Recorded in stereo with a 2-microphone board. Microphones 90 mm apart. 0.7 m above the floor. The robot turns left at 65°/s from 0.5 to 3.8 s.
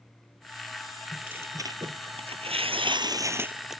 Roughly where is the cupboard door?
I don't hear a cupboard door.